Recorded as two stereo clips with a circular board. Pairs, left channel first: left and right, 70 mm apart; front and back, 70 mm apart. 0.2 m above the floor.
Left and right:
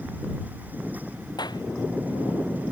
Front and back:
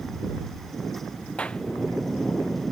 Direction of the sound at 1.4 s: 75° left.